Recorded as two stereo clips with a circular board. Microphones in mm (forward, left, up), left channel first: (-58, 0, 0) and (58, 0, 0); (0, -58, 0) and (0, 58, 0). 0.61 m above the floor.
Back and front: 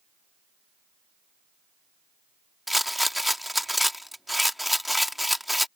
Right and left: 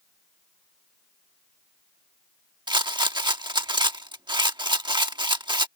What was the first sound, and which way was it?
A rattle, 90° left.